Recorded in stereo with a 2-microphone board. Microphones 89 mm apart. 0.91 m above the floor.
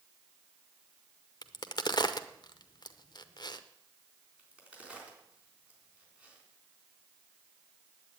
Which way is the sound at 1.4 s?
50° left (ahead or behind).